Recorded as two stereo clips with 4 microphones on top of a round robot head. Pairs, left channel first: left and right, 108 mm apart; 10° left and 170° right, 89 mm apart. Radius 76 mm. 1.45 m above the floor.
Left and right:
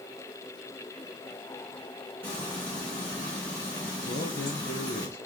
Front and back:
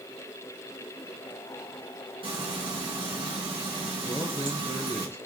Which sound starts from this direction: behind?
Frying, at 2.2 s.